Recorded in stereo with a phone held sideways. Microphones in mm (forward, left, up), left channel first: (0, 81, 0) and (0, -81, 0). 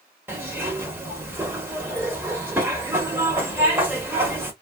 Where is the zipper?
15° right (ahead or behind), 1.0 m.